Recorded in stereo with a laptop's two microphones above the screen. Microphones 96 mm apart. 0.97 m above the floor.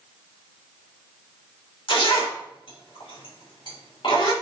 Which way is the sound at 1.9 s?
60° left (ahead or behind).